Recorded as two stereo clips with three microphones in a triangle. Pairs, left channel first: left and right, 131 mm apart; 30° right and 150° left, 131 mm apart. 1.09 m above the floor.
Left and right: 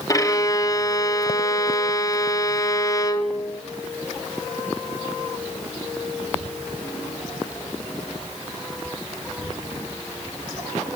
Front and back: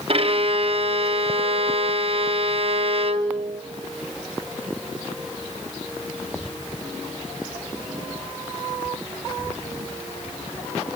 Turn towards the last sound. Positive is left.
turn(degrees=140)